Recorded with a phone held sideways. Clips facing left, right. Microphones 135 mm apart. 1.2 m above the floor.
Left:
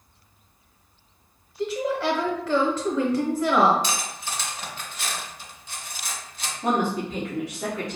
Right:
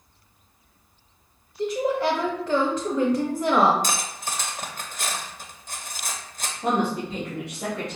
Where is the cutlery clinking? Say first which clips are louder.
Right 1 dB; 45° right (ahead or behind), 0.6 m.